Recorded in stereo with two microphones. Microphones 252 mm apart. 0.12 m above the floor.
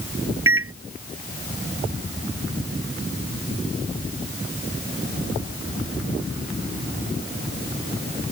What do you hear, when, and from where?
0.5 s a microwave: 60° right (ahead or behind)